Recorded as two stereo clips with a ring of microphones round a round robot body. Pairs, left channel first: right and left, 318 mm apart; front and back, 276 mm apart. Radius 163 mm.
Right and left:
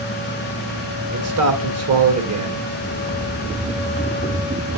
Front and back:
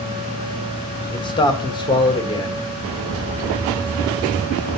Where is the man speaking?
70° left, 1.7 m.